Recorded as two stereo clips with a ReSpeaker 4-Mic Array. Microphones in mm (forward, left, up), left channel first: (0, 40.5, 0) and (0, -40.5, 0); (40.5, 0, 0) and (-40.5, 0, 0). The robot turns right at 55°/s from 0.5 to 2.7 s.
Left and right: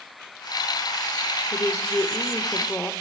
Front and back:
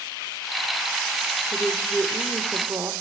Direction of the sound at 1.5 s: 80° left.